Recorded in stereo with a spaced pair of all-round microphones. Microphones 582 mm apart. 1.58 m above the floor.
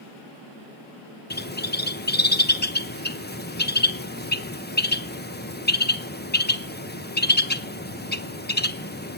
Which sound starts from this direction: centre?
A bird, at 1.3 s.